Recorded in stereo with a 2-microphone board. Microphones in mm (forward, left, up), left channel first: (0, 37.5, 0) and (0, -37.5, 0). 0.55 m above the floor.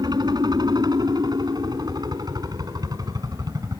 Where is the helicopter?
65° right (ahead or behind); by 3.8 s 55° right (ahead or behind).